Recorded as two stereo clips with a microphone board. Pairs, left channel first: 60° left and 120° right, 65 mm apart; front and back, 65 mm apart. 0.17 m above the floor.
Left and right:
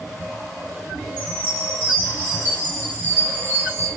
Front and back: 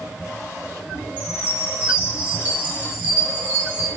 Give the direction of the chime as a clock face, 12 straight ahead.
5 o'clock.